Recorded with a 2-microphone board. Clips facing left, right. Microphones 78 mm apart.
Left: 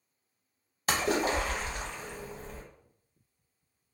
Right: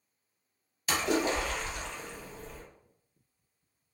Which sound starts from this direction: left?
A splash, at 0.9 s.